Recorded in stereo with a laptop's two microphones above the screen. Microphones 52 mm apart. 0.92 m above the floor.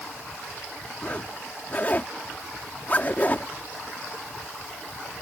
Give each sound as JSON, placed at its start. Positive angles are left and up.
{"t": 1.0, "sound": "a zipper", "side_deg": 35}